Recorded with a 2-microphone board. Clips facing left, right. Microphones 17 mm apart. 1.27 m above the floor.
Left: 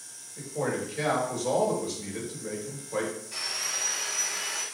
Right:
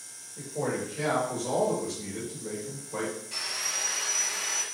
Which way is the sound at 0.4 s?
65° left (ahead or behind).